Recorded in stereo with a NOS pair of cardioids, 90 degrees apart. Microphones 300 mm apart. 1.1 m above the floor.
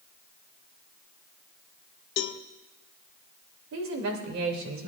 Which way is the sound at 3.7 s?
70° right.